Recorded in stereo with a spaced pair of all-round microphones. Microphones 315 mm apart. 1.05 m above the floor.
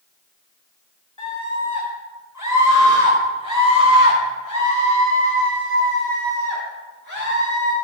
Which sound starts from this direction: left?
A scream, at 1.2 s.